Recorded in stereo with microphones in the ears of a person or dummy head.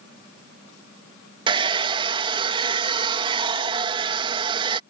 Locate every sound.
1.5 s a hair dryer: 20° right (ahead or behind)